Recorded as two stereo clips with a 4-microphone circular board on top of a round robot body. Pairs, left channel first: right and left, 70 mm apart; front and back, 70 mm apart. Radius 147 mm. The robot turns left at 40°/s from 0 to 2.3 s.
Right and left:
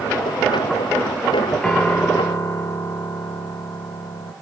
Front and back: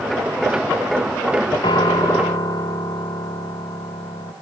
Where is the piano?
5° right, 1.2 m; by 4.3 s 30° right, 1.2 m.